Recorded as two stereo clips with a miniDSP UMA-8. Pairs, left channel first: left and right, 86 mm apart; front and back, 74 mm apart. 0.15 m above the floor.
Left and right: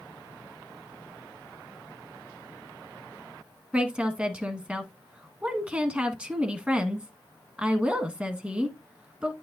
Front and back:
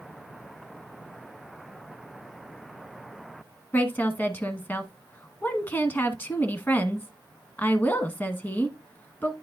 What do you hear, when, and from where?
3.7 s a woman speaking: 30° right, 1.1 m